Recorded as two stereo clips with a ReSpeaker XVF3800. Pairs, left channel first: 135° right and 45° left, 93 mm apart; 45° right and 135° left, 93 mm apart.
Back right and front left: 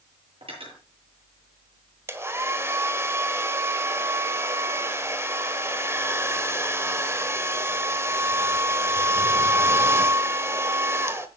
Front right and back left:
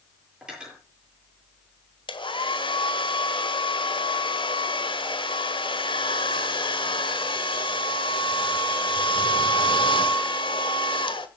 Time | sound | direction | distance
0.4 | cutlery clinking | 55° left | 8.5 m
2.1 | a hair dryer | 20° right | 1.4 m